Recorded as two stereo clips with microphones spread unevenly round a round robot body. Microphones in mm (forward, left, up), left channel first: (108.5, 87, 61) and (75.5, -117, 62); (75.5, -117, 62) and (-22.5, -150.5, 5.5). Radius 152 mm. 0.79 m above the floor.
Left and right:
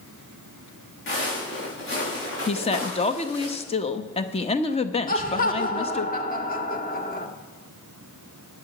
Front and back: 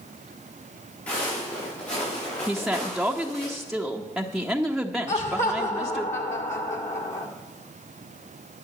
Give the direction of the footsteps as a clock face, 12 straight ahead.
10 o'clock.